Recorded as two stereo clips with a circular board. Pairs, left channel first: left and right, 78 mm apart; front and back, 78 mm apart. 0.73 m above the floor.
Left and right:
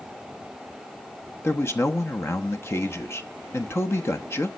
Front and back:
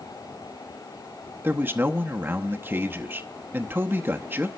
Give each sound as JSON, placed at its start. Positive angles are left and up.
{"t": 1.4, "sound": "a man speaking", "azimuth_deg": 130, "distance_m": 0.9}